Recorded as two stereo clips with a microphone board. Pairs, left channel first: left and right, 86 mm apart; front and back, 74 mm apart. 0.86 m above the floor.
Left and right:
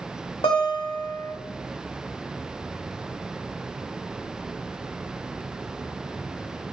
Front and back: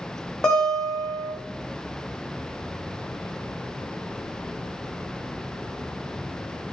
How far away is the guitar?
About 0.9 m.